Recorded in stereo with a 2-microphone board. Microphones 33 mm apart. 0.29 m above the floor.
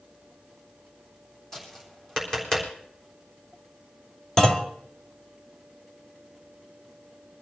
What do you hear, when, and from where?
1.5 s tapping: 20° left (ahead or behind), 3.5 m
4.4 s a clunk: 25° left (ahead or behind), 1.1 m